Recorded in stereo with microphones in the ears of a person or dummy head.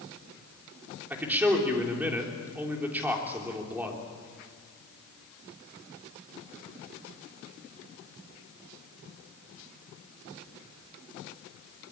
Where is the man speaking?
5° right (ahead or behind), 3.5 m.